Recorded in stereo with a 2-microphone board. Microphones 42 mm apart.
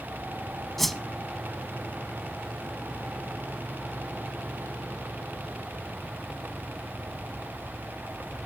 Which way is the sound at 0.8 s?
5° left (ahead or behind).